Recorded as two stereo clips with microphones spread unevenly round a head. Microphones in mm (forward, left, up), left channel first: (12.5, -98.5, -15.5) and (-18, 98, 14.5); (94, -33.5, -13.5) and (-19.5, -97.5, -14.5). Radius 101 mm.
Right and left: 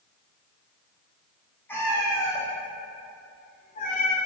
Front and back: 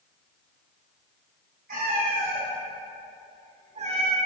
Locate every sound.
1.7 s a cat meowing: 165° right, 3 m; by 4.2 s 120° right, 1.3 m